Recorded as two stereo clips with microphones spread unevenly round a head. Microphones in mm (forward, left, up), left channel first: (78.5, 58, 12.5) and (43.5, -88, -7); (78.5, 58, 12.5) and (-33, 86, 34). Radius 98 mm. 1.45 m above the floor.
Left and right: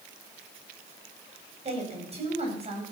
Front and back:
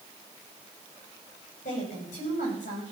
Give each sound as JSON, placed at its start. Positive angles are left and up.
{"t": 1.6, "sound": "a woman speaking", "azimuth_deg": -55, "distance_m": 8.0}